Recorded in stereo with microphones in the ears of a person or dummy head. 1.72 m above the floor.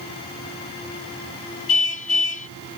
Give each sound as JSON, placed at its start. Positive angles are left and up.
{"t": 1.7, "sound": "a car horn", "side_deg": 45}